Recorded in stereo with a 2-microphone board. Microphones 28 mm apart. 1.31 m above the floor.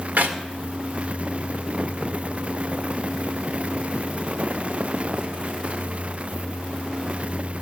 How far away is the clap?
About 1.9 m.